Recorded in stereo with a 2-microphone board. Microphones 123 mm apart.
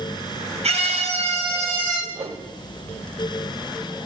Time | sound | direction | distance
0.6 | a scream | 55° right (ahead or behind) | 3.5 m
2.1 | a whoosh | 45° right (ahead or behind) | 0.9 m